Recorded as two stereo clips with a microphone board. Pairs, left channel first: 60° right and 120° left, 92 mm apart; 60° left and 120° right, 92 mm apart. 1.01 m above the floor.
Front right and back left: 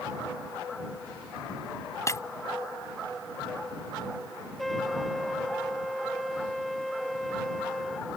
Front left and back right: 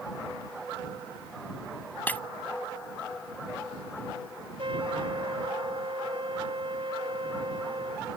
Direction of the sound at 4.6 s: 150° right.